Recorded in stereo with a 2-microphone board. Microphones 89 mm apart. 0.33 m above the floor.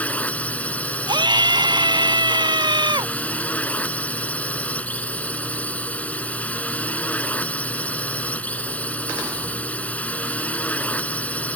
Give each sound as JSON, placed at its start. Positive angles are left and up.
{"t": 0.0, "sound": "a drone", "side_deg": 15}
{"t": 1.1, "sound": "a scream", "side_deg": -60}